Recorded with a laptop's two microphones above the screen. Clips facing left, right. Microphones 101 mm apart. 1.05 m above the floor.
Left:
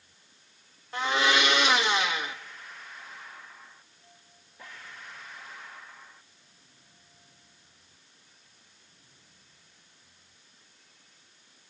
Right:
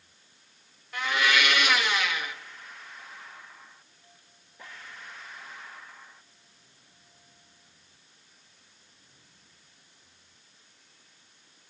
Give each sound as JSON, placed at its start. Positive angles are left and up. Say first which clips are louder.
{"t": 0.9, "sound": "a blender", "louder": "left 1 dB", "side_deg": 30, "distance_m": 1.6}